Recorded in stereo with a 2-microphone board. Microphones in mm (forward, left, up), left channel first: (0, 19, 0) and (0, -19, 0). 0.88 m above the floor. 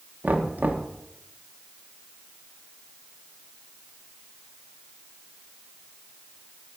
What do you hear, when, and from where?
0.2 s knocking: 50° right (ahead or behind), 0.9 m